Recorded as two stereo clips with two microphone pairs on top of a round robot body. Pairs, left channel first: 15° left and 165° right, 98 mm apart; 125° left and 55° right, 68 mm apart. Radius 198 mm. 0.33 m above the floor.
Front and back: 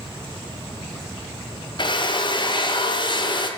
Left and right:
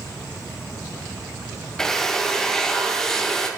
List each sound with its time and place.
1.8 s a drill: 45° left, 1.0 m